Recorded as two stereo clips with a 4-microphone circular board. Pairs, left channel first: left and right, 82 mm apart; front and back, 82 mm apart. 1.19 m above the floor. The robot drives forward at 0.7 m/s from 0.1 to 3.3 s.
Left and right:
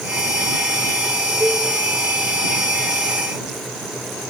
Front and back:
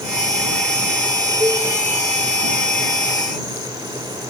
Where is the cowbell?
150° right, 6 m.